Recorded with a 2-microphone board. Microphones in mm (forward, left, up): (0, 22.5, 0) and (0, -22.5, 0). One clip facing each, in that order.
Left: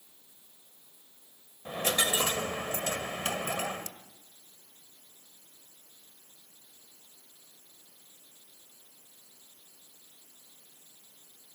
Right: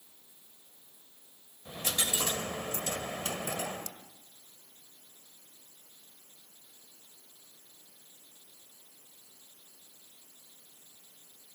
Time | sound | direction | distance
1.6 | a dropped coin | 55° left (ahead or behind) | 1.5 m